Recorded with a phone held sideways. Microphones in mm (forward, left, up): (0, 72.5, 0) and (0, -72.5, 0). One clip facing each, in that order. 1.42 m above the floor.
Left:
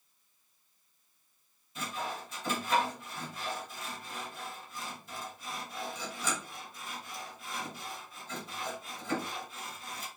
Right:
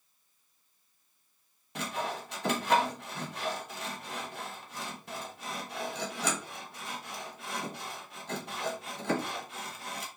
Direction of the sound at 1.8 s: 75° right (ahead or behind).